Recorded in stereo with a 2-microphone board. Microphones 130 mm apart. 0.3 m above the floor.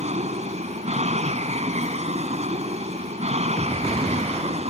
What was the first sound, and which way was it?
An aircraft, 60° right (ahead or behind).